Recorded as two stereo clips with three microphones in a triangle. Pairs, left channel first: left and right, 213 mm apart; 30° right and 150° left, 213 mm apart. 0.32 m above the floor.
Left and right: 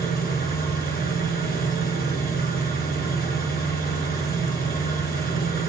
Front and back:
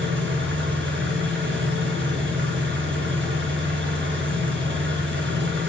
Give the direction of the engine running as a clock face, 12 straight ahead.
8 o'clock.